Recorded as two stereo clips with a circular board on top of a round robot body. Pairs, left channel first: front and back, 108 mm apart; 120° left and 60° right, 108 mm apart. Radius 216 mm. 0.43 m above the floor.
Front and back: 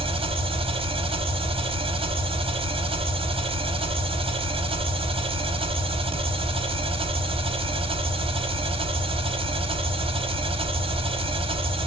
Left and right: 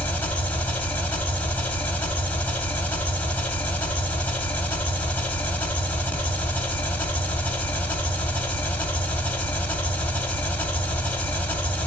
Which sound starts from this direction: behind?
An engine running, at 0.0 s.